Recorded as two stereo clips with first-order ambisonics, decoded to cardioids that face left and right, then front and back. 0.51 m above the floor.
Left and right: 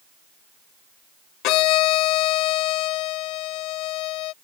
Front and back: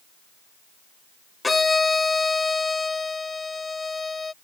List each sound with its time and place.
1.4 s a violin: 75° left